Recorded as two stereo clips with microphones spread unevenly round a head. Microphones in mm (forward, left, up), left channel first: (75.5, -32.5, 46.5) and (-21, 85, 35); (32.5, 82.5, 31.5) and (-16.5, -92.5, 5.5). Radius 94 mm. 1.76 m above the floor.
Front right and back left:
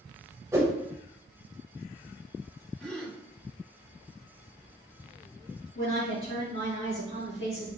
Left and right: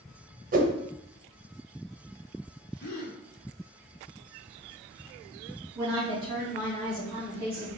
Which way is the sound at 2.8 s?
35° left.